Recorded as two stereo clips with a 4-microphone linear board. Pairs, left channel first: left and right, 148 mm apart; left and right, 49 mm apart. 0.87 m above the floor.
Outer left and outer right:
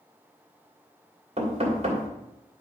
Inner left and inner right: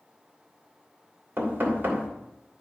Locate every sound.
1.4 s knocking: 45° right (ahead or behind), 2.5 m